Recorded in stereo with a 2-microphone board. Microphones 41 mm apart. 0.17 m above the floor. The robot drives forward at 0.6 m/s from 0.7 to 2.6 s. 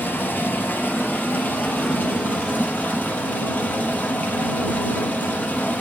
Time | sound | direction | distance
0.0 | running water | 50° left (ahead or behind) | 3.5 m